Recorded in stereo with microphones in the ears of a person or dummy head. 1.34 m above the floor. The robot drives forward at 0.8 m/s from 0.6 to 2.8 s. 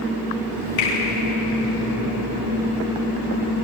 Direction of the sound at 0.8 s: 70° left (ahead or behind).